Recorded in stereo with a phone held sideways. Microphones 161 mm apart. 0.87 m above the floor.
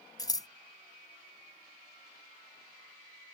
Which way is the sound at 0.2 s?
25° left (ahead or behind).